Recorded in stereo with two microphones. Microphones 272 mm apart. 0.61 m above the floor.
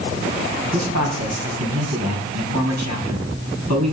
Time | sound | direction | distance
0.7 | a man speaking | 80° right | 5.5 m